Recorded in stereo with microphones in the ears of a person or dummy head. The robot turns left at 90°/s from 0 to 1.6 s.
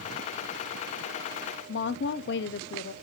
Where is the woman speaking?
55° left (ahead or behind), 0.6 m.